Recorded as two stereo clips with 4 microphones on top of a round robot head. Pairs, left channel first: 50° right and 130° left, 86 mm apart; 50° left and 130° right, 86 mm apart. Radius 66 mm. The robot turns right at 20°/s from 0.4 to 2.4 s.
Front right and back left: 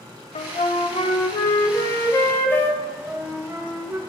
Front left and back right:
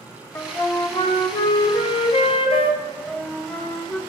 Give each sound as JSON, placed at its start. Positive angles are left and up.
{"t": 0.3, "sound": "a flute", "azimuth_deg": -20, "distance_m": 0.5}
{"t": 2.8, "sound": "a flute", "azimuth_deg": 115, "distance_m": 1.2}